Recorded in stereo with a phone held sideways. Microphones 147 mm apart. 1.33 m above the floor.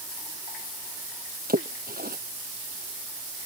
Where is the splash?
85° right.